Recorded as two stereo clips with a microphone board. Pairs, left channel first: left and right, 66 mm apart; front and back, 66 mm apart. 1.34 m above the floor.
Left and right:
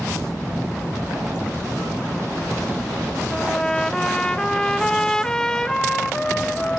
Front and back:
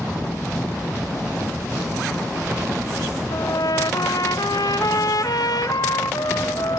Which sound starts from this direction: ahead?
A trumpet, at 3.3 s.